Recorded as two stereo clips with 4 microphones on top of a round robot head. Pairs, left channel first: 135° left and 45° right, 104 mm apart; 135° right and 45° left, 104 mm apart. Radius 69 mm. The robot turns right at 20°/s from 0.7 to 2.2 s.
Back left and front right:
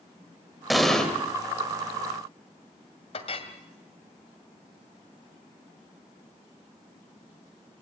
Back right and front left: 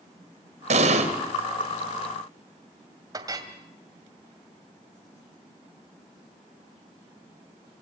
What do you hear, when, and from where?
0.7 s an explosion: 45° left, 2.5 m; by 1.1 s 50° left, 2.5 m
3.1 s a clink: 100° left, 2.5 m